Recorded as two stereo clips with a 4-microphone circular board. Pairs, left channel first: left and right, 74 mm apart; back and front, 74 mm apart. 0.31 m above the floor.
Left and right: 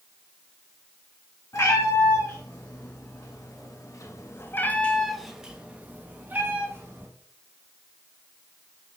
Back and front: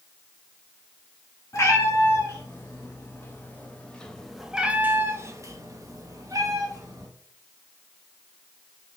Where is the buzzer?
No buzzer in this recording.